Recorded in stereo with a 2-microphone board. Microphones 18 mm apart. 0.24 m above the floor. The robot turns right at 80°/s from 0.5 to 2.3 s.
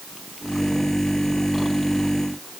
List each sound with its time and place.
Only background noise.